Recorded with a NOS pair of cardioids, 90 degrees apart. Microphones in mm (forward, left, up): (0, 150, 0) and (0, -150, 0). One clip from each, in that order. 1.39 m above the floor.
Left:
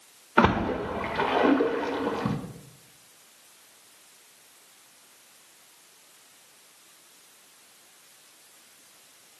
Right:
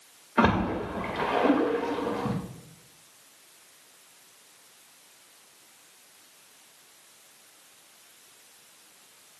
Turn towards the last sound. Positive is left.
turn(degrees=40)